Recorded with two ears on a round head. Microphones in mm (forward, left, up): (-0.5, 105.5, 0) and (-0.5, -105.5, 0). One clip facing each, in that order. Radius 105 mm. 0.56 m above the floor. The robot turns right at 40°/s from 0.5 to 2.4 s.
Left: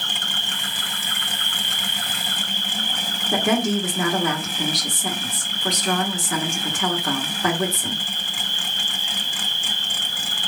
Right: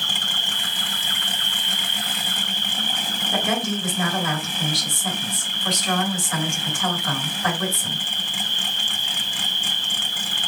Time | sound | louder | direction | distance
0.0 | an insect | even | 20° left | 2 m
3.3 | a woman speaking | left 5 dB | 50° left (ahead or behind) | 1.5 m